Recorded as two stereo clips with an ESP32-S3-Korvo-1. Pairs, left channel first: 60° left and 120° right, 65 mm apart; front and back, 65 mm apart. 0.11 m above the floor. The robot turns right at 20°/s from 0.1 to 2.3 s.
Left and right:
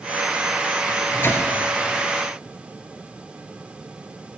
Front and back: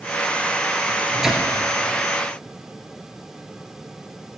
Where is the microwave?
90° left, 1.8 m; by 1.5 s 100° left, 1.8 m.